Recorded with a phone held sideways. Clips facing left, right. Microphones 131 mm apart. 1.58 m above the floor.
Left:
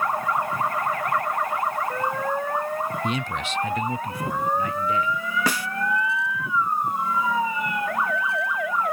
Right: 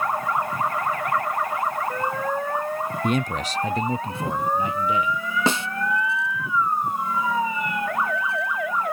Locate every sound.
3.0 s a man speaking: 55° right (ahead or behind); by 5.2 s 15° right (ahead or behind)
5.5 s a snare drum: 25° right (ahead or behind)